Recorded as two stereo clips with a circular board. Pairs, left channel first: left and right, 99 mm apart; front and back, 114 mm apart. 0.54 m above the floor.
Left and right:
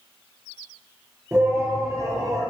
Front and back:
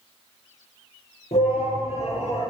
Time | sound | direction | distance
1.3 | a shout | 25° right | 9 m